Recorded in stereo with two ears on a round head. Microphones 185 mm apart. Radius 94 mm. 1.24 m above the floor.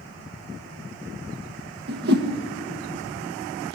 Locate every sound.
1.9 s a whoosh: 55° right (ahead or behind), 1.4 m